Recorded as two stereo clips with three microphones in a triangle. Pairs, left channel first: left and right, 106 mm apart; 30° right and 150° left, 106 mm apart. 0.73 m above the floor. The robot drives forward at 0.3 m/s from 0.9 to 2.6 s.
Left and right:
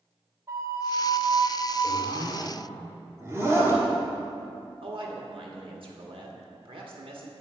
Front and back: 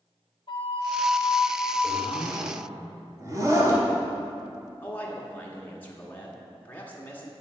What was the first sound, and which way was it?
A flute, 35° right.